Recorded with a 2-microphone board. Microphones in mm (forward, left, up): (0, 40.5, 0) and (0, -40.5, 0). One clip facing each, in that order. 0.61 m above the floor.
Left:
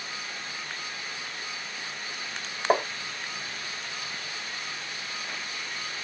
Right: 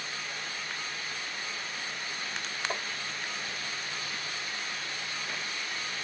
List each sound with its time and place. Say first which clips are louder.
2.7 s tapping: left 15 dB; 55° left (ahead or behind)